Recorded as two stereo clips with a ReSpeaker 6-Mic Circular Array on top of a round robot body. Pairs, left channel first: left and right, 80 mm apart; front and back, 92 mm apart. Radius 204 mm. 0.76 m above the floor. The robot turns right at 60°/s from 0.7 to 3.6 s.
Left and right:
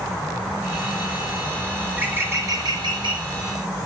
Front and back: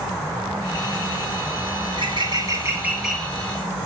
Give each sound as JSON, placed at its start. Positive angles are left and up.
{"t": 1.9, "sound": "a bird", "azimuth_deg": -165, "distance_m": 2.5}